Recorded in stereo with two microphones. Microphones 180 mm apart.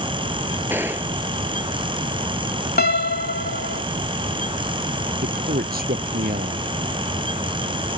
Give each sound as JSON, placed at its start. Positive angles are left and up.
{"t": 0.7, "sound": "a gunshot", "side_deg": -10}
{"t": 2.8, "sound": "a piano", "side_deg": 60}
{"t": 5.2, "sound": "a man speaking", "side_deg": -55}